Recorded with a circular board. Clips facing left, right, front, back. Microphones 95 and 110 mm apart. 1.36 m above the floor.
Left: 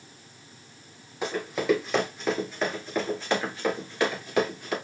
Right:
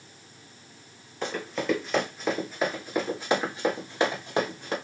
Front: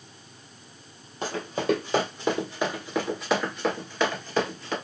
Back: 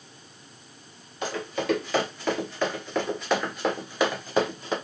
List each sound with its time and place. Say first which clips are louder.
1.2 s running footsteps: left 2 dB, front 1 dB; 15° left, 1.6 m; by 4.7 s 125° right, 1.6 m